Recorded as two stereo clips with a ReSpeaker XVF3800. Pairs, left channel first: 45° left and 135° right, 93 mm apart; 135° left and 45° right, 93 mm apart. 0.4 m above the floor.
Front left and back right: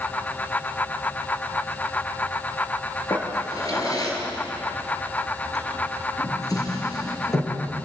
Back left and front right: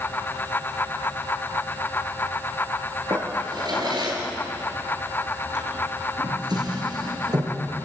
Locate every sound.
3.1 s a drawer: 5° right, 5 m